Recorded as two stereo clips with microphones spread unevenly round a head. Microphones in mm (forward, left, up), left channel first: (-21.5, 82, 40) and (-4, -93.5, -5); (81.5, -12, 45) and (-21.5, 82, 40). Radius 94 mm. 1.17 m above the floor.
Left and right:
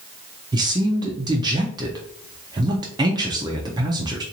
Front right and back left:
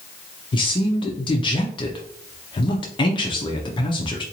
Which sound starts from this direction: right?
A man speaking, at 0.5 s.